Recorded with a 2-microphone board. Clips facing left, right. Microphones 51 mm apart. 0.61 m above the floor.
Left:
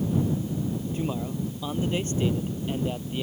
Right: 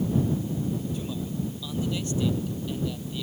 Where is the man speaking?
35° left (ahead or behind).